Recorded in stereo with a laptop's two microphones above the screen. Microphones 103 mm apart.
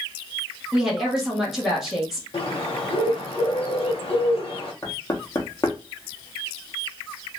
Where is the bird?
70° left (ahead or behind), 0.9 m.